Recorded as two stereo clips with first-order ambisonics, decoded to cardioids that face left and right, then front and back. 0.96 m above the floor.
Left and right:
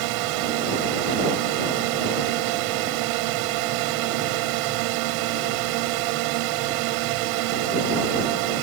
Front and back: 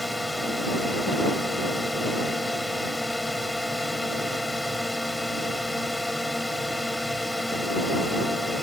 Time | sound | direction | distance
0.0 | a drone | 85° right | ?